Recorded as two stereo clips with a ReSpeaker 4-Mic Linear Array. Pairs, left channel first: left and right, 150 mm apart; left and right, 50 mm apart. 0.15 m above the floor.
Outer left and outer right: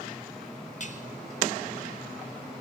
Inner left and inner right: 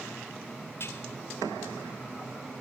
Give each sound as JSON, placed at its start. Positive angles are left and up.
{"t": 0.8, "sound": "dishes clattering", "side_deg": 55, "distance_m": 1.9}